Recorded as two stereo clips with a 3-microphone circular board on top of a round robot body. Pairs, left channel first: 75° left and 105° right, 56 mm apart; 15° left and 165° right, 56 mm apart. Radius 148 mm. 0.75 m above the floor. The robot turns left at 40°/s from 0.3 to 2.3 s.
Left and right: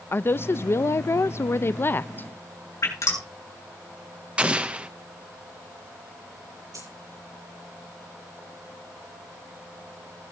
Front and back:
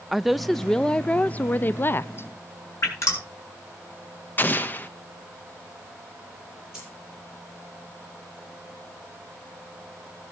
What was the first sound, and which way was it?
A woman speaking, 110° left.